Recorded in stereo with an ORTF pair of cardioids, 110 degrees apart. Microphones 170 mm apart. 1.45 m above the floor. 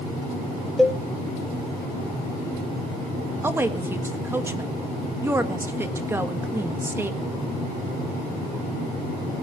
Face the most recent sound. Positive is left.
turn(degrees=-15)